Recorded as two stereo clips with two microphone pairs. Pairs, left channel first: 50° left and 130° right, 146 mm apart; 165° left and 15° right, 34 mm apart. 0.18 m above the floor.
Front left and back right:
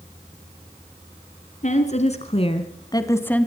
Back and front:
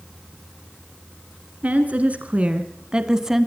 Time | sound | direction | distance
1.6 | a woman speaking | 25° left | 2 m